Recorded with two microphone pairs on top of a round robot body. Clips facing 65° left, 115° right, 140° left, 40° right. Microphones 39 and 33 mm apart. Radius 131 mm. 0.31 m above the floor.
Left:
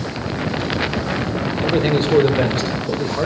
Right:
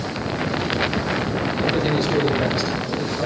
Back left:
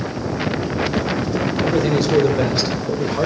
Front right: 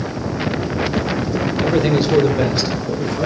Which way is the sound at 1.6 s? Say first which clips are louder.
Left 4 dB, front right 2 dB; 15° left.